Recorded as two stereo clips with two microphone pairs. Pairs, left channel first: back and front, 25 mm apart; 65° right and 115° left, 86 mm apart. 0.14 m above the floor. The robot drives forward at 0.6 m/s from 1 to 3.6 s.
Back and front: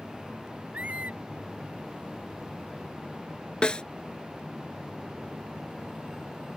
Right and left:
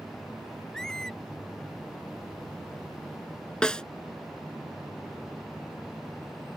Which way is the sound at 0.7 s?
20° left.